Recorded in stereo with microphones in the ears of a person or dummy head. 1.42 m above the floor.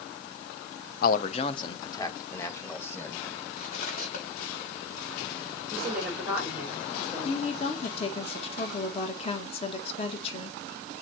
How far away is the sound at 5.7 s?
About 4.5 m.